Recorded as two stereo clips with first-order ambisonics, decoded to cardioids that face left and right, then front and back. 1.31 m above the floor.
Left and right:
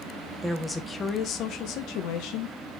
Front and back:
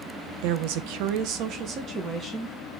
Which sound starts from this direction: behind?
A woman speaking, at 0.4 s.